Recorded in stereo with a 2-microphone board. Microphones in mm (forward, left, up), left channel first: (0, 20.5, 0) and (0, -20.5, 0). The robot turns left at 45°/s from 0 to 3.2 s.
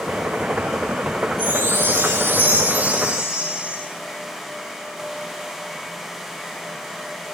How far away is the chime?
About 7.5 m.